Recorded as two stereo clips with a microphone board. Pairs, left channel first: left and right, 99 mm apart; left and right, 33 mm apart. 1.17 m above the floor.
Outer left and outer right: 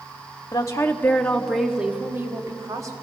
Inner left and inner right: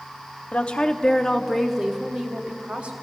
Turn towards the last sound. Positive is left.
turn(degrees=-35)  # may be behind; listen again after turning